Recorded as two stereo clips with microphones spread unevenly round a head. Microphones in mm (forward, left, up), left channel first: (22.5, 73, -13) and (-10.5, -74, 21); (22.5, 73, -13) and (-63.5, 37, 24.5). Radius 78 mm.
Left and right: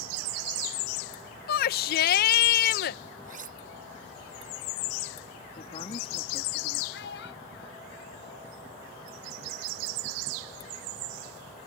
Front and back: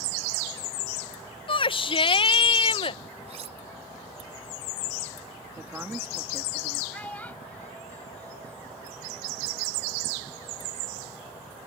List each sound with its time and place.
1.5 s a shout: 50° left
3.2 s cutlery clinking: 140° right
5.6 s a woman speaking: 135° left
6.9 s a child speaking: 100° left